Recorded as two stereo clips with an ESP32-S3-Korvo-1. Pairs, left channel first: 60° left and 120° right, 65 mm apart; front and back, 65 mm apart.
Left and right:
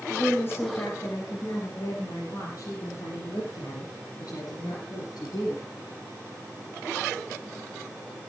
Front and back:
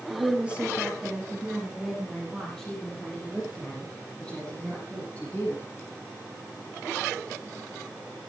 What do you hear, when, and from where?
0.1 s a woman speaking: 115° left, 3.5 m; by 5.6 s 70° left, 8 m